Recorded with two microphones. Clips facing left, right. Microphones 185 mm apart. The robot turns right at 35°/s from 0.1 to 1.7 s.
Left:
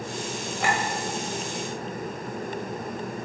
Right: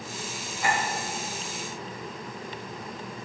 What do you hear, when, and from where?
0.6 s a clink: 80° left, 2.0 m; by 0.8 s 70° left (ahead or behind), 2.0 m